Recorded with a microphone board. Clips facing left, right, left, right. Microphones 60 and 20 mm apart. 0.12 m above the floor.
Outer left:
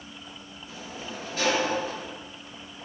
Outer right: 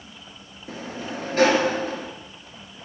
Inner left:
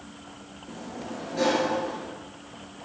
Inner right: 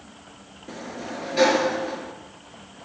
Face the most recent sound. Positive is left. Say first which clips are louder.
# outer right 7 dB, inner right 3 dB
turn(degrees=-45)  # may be behind; listen again after turning